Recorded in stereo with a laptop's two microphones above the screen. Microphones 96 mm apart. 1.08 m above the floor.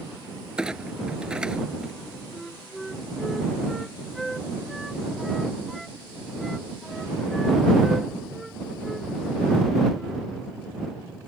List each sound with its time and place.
0.6 s a clunk: 10° right (ahead or behind)
2.3 s a flute: centre (ahead or behind)